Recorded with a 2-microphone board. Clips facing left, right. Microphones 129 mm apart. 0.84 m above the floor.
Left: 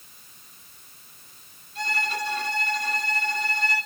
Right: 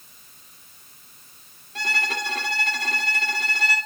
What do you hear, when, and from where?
1.8 s a violin: 75° right (ahead or behind), 2.0 m